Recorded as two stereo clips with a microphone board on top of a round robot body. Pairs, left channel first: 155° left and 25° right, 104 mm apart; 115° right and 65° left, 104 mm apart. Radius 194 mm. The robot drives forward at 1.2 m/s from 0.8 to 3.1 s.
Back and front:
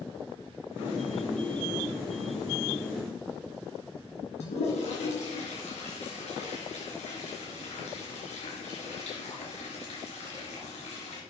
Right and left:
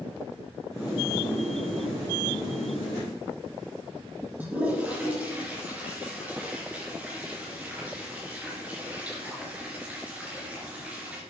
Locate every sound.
4.4 s a toilet flushing: 145° left, 3.5 m